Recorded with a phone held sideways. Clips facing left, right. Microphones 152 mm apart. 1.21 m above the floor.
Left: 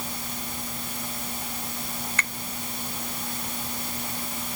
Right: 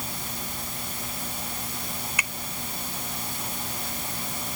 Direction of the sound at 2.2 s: 10° right (ahead or behind).